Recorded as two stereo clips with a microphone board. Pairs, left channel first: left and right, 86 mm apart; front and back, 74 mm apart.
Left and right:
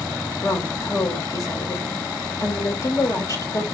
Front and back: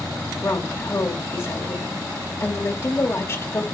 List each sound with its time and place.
0.4 s a woman speaking: 50° left, 2 m